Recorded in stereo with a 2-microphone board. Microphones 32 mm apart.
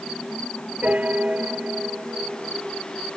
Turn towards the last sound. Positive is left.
turn(degrees=-50)  # may be behind; listen again after turning